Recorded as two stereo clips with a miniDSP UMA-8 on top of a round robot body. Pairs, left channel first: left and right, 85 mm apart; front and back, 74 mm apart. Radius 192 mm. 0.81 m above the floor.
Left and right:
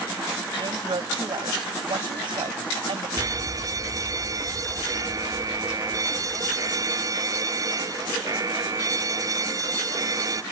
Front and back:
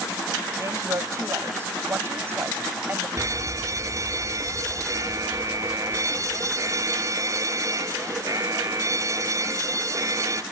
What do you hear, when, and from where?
0.6 s a woman speaking: 130° right; by 3.1 s 115° right
3.2 s a fire alarm: 135° right